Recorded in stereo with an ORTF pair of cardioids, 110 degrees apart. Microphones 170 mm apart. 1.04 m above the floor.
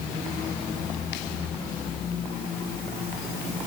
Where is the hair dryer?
I don't hear a hair dryer.